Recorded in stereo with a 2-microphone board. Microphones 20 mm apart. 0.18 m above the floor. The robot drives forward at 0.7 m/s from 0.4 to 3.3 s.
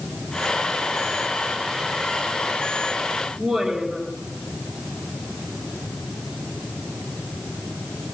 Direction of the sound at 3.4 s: 65° right (ahead or behind).